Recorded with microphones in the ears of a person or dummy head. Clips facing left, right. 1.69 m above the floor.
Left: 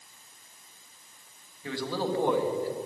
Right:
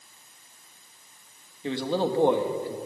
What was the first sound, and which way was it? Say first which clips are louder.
A man speaking: right 5 dB; 20° right (ahead or behind).